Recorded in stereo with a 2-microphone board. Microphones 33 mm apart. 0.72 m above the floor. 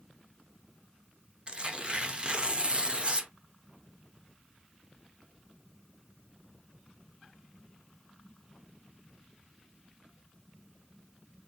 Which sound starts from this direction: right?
Tearing paper, at 1.5 s.